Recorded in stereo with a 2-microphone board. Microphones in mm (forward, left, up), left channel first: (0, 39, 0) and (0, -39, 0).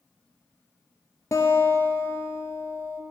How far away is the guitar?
About 0.6 m.